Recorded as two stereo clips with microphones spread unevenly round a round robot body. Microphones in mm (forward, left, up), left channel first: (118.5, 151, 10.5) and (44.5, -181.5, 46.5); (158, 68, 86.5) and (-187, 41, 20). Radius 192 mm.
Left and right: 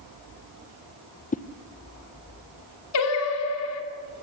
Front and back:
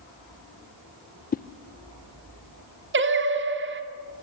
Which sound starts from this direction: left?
A whoosh, at 1.3 s.